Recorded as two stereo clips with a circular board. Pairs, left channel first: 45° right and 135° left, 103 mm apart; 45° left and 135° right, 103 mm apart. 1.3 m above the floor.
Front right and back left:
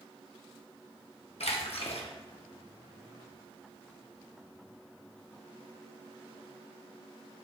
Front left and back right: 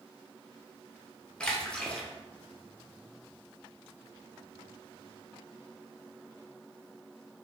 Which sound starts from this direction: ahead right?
A splash, at 1.4 s.